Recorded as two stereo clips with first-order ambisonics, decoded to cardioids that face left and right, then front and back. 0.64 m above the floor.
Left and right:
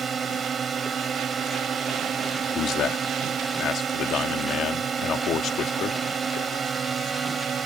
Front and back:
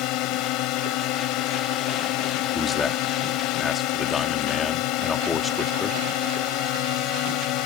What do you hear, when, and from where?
0.0 s a drone: 25° right
2.5 s a man speaking: 65° left